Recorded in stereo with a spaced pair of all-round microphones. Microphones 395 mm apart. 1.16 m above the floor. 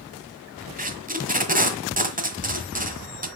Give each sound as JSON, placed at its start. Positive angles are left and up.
{"t": 0.8, "sound": "tape being pulled", "side_deg": -20, "distance_m": 1.3}